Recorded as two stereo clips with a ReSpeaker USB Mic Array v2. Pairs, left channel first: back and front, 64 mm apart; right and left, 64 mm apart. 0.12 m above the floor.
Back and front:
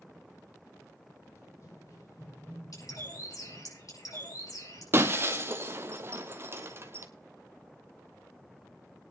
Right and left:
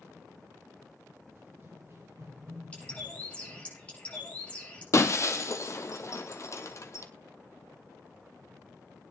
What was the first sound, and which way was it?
Running footsteps, 145° left.